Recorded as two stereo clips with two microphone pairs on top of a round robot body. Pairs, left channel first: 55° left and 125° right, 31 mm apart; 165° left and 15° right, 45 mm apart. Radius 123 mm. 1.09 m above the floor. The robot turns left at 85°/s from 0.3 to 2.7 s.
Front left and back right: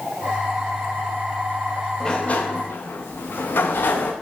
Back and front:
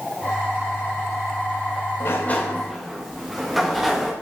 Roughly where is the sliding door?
Behind left.